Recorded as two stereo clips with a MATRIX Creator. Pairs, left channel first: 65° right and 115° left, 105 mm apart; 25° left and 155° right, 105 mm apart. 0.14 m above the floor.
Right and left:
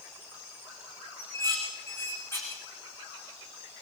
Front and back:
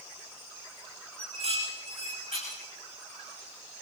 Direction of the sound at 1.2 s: 135° right.